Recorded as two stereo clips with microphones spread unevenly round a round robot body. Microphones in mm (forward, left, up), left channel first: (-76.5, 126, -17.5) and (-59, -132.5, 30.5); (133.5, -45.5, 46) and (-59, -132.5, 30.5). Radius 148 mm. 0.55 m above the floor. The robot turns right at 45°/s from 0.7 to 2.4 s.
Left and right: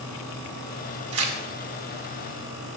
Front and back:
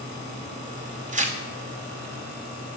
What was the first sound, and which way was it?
Tearing paper, 115° right.